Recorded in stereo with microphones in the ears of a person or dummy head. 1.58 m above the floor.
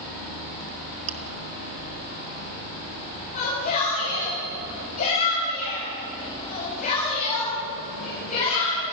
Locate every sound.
1.1 s chewing: 35° right (ahead or behind), 1.8 m
3.3 s a shout: 45° left (ahead or behind), 8.5 m